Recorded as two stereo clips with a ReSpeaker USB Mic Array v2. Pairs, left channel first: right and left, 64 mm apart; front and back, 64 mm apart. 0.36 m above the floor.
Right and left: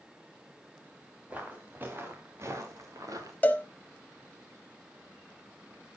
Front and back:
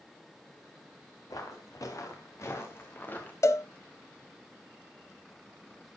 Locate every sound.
1.3 s footsteps: 25° left, 3.5 m; by 3.3 s 65° left, 3 m
3.4 s a cowbell: 25° right, 1.0 m